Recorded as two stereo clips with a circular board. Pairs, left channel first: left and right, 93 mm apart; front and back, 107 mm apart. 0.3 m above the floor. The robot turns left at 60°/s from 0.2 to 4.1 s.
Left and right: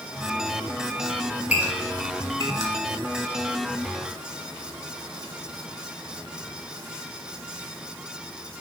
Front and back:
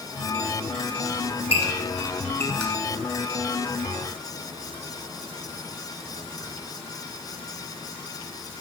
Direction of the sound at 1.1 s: 15° left.